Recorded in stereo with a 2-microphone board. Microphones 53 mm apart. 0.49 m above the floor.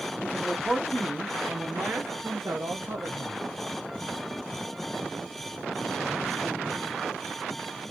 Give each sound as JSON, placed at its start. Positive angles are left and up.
{"t": 0.2, "sound": "a man speaking", "side_deg": 15, "distance_m": 0.9}